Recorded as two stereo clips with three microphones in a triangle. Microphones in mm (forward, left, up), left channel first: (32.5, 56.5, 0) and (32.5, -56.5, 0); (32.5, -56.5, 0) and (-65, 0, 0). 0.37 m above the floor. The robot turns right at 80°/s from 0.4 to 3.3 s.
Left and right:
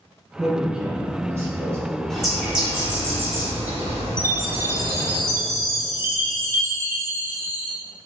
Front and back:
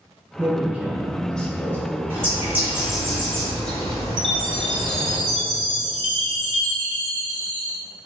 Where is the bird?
165° left, 1.1 m; by 5.2 s 100° right, 1.1 m.